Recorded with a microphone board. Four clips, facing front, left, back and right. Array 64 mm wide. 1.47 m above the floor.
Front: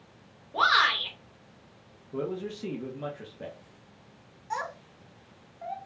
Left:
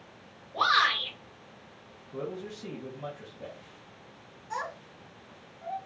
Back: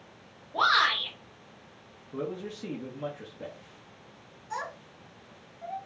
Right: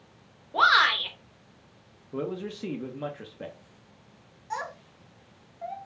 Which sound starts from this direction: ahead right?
A child speaking, at 4.5 s.